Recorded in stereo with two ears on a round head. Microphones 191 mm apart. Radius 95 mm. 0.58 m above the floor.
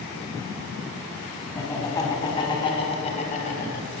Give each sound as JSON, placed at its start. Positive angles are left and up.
{"t": 1.6, "sound": "laughter", "side_deg": 15, "distance_m": 4.0}